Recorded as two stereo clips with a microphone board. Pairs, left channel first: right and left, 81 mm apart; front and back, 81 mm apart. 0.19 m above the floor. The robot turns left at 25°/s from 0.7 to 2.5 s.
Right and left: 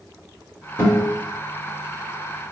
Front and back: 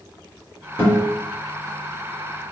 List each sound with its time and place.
0.8 s a guitar: 45° right, 1.6 m; by 1.1 s 50° right, 1.6 m